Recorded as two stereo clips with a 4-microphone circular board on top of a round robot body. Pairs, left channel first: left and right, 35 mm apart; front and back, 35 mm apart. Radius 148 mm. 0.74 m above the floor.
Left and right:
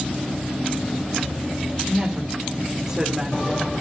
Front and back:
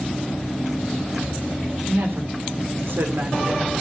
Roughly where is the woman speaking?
Behind.